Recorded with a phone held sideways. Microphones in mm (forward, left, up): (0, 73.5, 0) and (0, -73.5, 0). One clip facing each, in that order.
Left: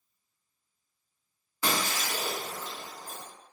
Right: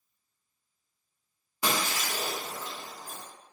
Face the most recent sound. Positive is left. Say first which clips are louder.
# even
turn(degrees=-15)  # may be behind; listen again after turning